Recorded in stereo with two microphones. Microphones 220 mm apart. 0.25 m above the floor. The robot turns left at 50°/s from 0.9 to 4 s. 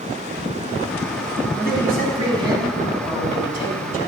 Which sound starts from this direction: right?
A man speaking, at 1.6 s.